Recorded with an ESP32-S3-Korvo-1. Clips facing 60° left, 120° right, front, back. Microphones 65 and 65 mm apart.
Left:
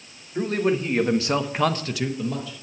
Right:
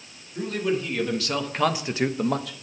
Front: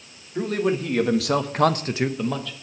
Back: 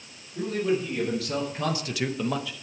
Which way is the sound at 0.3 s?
20° left.